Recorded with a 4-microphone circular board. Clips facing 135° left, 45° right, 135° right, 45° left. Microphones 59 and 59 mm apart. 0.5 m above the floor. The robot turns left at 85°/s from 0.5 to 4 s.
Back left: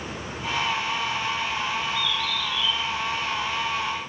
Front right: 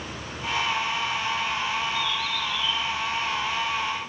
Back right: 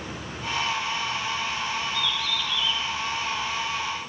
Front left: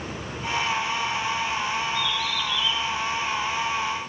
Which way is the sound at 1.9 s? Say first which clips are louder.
Even, front left 2 dB; 25° right.